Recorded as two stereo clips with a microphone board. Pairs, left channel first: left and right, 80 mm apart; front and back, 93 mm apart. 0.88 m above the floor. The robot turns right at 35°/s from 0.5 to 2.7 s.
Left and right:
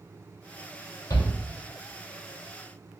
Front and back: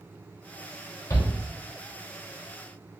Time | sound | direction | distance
1.1 | a shout | 50° left | 2.5 m